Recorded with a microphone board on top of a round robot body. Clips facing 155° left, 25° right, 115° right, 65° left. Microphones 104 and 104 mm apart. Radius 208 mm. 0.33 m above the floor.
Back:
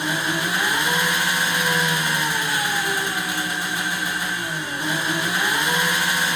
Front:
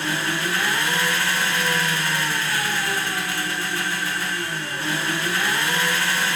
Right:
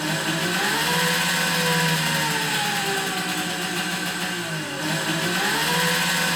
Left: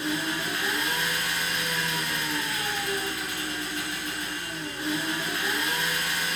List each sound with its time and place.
0.0 s an engine running: 130° right, 1.4 m